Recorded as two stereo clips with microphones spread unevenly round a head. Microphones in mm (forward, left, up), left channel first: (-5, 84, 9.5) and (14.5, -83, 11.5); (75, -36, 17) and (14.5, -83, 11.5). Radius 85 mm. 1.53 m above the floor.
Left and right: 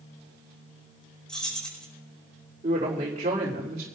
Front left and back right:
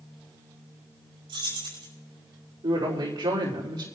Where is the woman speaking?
135° right, 3.5 m.